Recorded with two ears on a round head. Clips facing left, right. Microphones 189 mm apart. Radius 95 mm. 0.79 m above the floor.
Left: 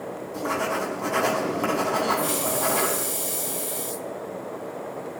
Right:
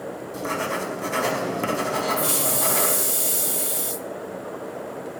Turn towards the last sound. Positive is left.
turn(degrees=-25)  # may be behind; listen again after turning